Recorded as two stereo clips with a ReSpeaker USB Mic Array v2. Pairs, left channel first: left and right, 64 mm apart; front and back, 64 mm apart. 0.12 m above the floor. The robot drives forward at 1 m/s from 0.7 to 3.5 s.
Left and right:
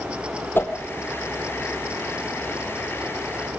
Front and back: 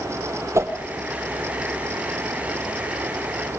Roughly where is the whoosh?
Behind left.